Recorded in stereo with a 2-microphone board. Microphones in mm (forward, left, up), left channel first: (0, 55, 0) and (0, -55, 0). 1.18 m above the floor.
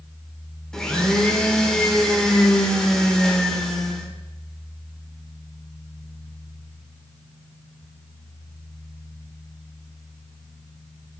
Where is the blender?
5° left (ahead or behind), 0.9 m.